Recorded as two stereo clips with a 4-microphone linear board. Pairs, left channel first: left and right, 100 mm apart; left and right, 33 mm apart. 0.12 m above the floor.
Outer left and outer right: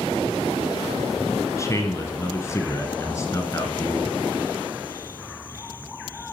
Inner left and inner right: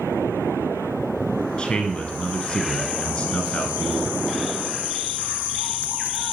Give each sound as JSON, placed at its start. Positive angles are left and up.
{"t": 1.6, "sound": "a man speaking", "side_deg": 30, "distance_m": 1.6}